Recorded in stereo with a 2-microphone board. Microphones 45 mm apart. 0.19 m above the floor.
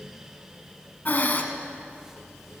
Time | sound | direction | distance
1.1 | breathing | 45° left (ahead or behind) | 1.1 m